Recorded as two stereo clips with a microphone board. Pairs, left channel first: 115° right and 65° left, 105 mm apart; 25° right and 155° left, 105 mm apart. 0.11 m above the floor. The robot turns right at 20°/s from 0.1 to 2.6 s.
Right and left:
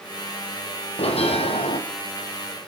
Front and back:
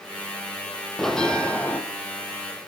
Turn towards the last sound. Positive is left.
turn(degrees=-75)